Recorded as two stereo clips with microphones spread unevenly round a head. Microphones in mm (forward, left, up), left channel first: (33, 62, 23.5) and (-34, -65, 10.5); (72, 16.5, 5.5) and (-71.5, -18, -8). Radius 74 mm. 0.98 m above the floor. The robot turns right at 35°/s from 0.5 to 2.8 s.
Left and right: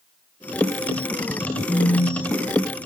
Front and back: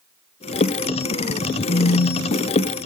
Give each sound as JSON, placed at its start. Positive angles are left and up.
{"t": 1.7, "sound": "a phone buzzing", "azimuth_deg": -10, "distance_m": 1.7}